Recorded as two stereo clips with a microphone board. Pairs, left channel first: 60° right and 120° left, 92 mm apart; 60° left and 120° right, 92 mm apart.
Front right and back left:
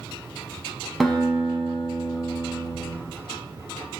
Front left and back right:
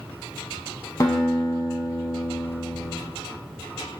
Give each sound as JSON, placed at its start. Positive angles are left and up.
{"t": 1.0, "sound": "a guitar", "azimuth_deg": 35, "distance_m": 0.8}